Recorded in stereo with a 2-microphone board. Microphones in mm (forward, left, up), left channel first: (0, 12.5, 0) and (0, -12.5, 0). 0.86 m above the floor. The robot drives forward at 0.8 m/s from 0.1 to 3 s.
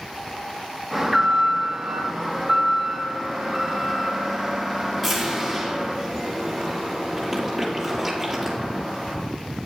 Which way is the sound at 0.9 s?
Centre (ahead or behind).